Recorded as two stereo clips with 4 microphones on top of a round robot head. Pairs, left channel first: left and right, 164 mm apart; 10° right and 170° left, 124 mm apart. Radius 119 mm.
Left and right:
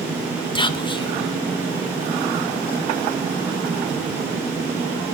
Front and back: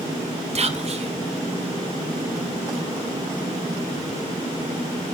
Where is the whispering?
150° left, 1.6 m.